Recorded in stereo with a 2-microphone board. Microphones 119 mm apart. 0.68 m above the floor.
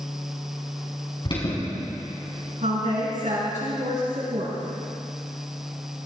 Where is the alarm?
45° left (ahead or behind), 5 m.